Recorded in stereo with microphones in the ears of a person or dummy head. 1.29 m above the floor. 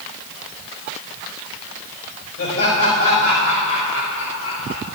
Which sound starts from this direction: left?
Laughter, at 2.4 s.